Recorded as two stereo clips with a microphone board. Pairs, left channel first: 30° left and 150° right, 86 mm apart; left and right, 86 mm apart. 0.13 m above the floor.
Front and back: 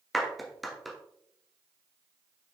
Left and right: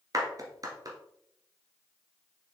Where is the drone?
No drone in this recording.